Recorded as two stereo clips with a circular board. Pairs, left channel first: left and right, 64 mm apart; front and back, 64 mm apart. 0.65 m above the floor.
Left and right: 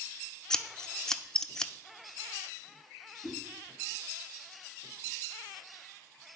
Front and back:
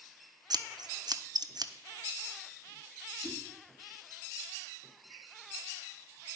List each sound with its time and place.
0.5 s scissors: 170° left, 0.6 m
3.2 s a whoosh: 90° left, 5 m